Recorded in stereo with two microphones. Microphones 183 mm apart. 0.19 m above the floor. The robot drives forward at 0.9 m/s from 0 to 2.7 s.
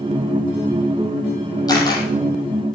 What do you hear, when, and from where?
1.7 s a camera shutter: 20° left (ahead or behind), 5 m; by 2.0 s 25° left (ahead or behind), 4.5 m